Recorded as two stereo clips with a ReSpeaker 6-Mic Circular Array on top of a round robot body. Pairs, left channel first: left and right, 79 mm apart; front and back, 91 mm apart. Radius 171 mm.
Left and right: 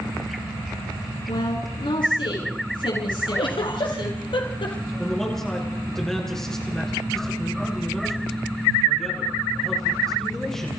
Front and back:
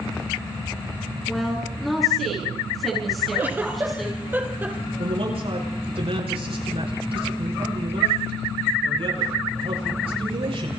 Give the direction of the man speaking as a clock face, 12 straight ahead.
6 o'clock.